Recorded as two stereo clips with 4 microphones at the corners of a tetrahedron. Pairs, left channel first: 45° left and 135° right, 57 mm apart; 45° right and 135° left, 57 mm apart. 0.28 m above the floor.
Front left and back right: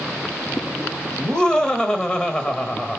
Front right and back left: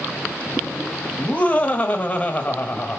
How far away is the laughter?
About 1.0 m.